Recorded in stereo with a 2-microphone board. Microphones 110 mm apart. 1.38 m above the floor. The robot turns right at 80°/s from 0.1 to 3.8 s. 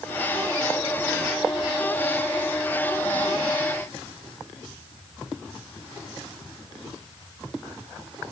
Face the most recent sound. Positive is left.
No sound to turn to.